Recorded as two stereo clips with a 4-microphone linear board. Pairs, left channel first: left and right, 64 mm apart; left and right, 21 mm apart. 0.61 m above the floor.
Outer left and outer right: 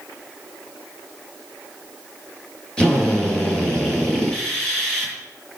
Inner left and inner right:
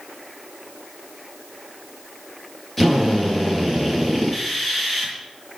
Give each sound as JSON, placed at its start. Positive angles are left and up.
{"t": 2.8, "sound": "a drill", "side_deg": 15, "distance_m": 7.0}